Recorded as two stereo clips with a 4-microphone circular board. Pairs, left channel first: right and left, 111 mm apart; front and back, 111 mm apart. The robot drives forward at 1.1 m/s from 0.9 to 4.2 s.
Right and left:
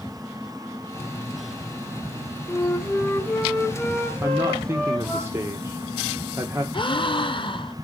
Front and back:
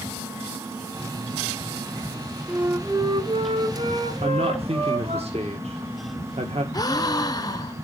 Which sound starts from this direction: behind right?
A flute, at 2.5 s.